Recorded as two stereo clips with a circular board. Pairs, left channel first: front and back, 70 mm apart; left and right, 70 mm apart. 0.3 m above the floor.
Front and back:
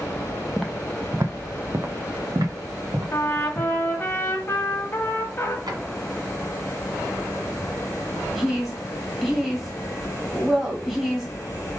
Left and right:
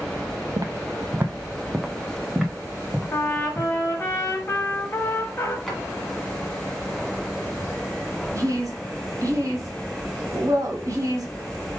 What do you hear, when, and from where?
0.6 s footsteps: 85° right, 0.5 m; by 4.1 s 170° left, 2.5 m
3.1 s a trumpet: 45° left, 1.2 m
5.7 s a drawer: straight behind, 1.6 m
8.3 s a woman speaking: 90° right, 1.6 m